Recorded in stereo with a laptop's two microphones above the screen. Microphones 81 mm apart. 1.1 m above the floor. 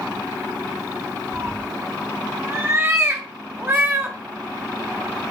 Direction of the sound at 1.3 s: 30° right (ahead or behind).